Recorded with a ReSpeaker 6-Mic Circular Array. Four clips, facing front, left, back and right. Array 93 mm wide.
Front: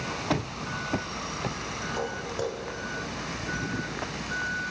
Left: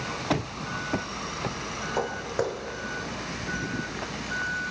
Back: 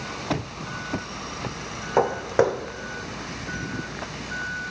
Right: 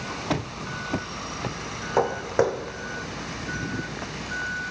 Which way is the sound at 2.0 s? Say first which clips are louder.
Right 7 dB, back 13 dB; 155° right.